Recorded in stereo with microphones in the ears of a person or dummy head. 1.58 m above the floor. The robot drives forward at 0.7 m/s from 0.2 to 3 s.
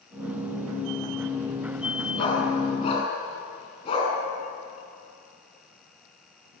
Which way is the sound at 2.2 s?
25° left (ahead or behind).